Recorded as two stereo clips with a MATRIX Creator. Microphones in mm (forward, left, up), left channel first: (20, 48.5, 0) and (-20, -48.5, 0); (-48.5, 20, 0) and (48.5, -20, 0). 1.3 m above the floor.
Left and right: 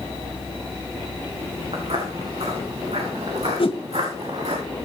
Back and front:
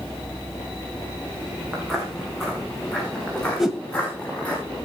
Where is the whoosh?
65° left, 2 m.